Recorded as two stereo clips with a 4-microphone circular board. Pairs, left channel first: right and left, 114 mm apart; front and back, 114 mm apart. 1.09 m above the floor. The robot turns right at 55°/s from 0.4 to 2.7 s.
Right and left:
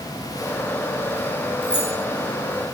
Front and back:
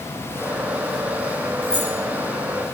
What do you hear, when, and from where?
1.6 s keys jangling: 140° right, 7 m; by 1.9 s 125° right, 7 m